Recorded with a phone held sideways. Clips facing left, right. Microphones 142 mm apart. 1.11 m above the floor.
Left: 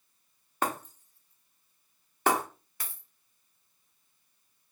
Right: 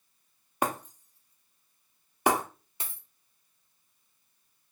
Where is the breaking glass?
15° right (ahead or behind), 0.7 m.